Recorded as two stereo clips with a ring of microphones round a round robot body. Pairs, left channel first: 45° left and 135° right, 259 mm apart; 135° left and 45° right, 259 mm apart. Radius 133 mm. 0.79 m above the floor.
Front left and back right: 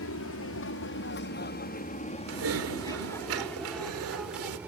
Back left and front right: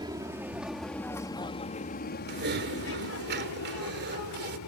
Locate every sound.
0.0 s an aircraft: 25° left; by 4.7 s 140° left
2.3 s typing on a keyboard: 100° right